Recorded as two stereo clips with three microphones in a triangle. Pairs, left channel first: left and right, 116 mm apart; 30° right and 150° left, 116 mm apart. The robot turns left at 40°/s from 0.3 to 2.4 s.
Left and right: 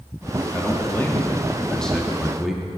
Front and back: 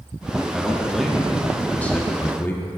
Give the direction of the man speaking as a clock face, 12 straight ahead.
10 o'clock.